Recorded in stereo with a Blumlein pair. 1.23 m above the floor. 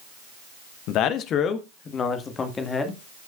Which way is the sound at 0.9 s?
40° left.